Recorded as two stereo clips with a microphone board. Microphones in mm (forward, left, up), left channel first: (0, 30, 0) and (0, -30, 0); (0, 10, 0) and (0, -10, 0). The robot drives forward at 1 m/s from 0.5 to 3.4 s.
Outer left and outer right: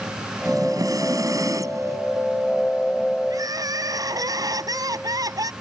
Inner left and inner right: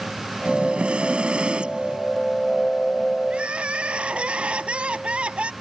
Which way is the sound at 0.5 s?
75° right (ahead or behind).